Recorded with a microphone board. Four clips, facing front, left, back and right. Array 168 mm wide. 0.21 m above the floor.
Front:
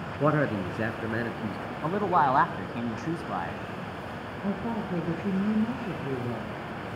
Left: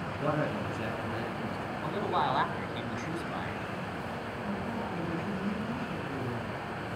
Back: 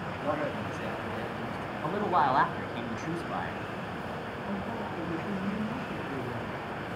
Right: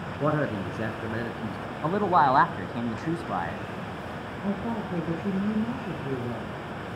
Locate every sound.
0.2 s a man speaking: 30° right, 2.5 m
1.8 s a man speaking: 75° right, 1.4 m
4.4 s a woman speaking: 45° right, 4.5 m